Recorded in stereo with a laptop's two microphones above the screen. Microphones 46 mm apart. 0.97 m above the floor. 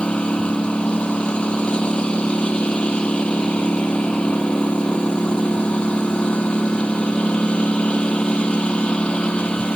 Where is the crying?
I don't hear crying.